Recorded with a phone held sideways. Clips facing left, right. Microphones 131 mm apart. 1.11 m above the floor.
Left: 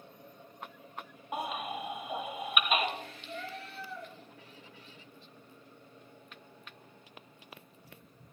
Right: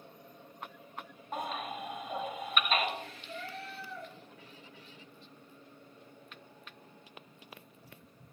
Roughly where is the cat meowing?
Left.